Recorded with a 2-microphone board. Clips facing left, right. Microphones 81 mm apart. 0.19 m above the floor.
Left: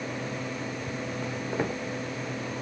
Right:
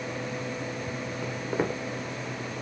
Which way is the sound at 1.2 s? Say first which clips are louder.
Right 2 dB; 15° right (ahead or behind).